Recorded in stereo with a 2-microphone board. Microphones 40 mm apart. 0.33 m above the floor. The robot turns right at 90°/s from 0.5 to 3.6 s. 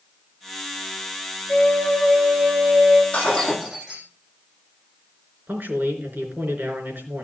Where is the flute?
130° left, 1.7 m; by 3.0 s 90° right, 1.7 m.